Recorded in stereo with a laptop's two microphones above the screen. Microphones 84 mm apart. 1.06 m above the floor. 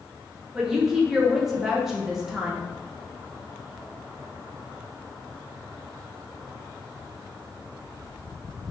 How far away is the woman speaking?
About 0.6 m.